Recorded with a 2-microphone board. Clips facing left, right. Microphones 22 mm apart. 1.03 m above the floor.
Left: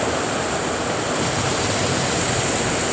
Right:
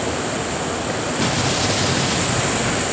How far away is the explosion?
About 1.0 m.